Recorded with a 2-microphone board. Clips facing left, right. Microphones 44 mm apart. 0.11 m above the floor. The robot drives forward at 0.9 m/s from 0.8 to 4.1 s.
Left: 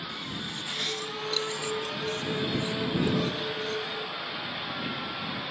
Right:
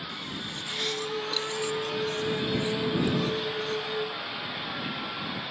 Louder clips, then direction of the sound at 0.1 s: Even; 5° right (ahead or behind).